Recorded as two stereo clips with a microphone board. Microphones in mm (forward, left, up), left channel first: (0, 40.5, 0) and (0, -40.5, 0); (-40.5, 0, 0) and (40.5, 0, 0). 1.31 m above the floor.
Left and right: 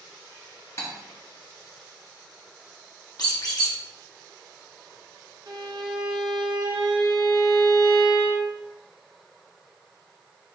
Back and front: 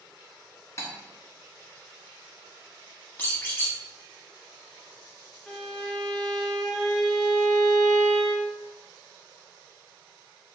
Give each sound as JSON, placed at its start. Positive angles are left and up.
{"t": 0.8, "sound": "cutlery clinking", "azimuth_deg": 135, "distance_m": 0.9}
{"t": 3.2, "sound": "a squeak", "azimuth_deg": 115, "distance_m": 1.0}
{"t": 5.5, "sound": "a violin", "azimuth_deg": -100, "distance_m": 0.8}